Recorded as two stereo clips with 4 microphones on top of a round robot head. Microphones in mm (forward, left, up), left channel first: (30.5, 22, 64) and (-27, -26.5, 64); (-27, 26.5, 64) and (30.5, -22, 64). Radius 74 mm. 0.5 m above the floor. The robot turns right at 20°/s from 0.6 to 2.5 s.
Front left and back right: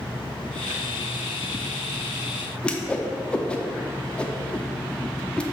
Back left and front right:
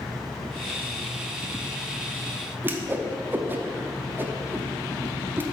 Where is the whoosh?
20° right, 0.8 m.